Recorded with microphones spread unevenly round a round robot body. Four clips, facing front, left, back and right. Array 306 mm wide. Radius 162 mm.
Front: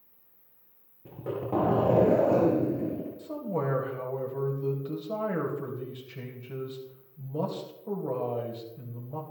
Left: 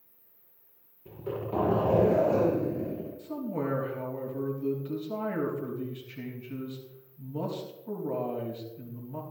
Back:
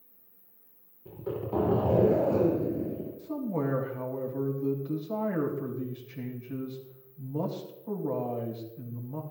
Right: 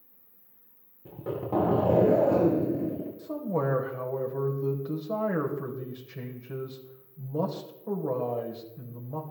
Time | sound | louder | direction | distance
0.0 | an insect | right 2 dB, back 2 dB | 100° right | 3 m
1.1 | a zipper | right 2 dB, front 1 dB | 50° right | 7.5 m
3.2 | a man speaking | right 4 dB, back 1 dB | 60° right | 3.5 m